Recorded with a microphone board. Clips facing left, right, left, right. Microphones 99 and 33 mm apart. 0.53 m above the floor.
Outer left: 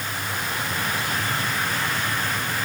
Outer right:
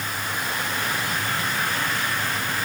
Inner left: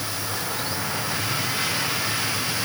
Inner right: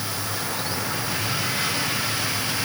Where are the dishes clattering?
I don't hear dishes clattering.